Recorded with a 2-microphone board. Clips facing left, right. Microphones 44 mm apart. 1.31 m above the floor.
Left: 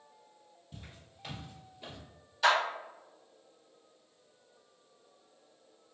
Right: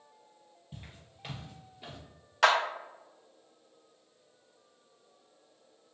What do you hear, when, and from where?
0.7 s footsteps: 25° right (ahead or behind), 1.6 m; by 2.0 s 5° right (ahead or behind), 1.3 m
2.4 s a clap: 80° right, 0.8 m